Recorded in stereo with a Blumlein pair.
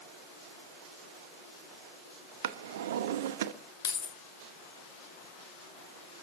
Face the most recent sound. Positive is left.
turn(degrees=55)